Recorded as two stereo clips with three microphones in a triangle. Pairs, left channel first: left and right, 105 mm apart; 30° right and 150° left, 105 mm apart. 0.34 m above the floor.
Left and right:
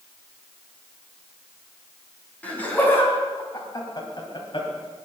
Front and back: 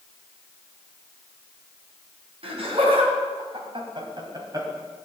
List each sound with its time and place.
2.4 s laughter: 165° left, 3.5 m; by 4.7 s 100° left, 2.5 m